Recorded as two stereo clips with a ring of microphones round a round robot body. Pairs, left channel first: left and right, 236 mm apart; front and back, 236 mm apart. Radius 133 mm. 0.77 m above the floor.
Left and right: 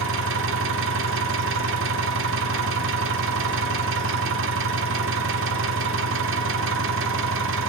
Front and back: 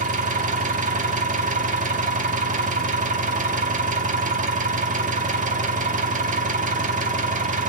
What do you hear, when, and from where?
0.0 s an engine running: 125° right, 1.4 m